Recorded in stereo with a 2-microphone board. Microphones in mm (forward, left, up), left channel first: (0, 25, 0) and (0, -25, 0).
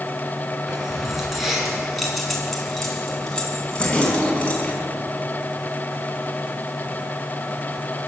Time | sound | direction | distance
0.7 | keys jangling | 10° right (ahead or behind) | 6 m